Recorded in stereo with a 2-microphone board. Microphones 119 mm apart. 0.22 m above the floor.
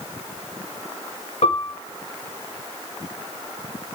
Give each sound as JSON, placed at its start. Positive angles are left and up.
{"t": 1.4, "sound": "a piano", "side_deg": 65, "distance_m": 2.0}